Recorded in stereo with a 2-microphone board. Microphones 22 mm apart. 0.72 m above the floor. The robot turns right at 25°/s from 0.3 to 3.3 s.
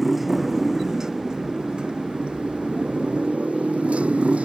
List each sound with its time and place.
0.0 s a motorcycle: 10° right (ahead or behind); by 4.5 s 85° right